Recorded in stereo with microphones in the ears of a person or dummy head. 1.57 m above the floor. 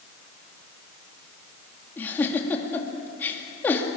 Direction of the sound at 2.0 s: 15° left (ahead or behind).